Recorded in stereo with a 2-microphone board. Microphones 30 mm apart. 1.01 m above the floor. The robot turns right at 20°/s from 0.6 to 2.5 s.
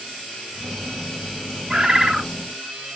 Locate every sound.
1.7 s a bird: 35° right (ahead or behind), 1.1 m; by 2.3 s 20° right (ahead or behind), 1.1 m